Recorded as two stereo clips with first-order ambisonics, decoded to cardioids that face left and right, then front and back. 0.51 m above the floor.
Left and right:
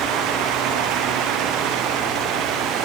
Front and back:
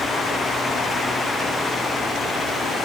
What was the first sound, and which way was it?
Only background noise.